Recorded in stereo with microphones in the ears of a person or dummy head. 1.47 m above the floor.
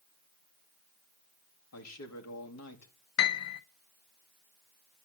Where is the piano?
75° left (ahead or behind), 0.9 m.